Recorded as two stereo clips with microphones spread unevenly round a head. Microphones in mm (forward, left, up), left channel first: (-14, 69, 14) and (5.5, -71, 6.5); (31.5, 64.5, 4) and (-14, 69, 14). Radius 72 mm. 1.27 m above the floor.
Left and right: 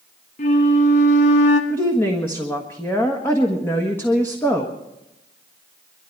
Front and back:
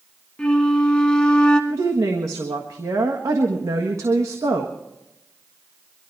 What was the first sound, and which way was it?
A flute, 70° left.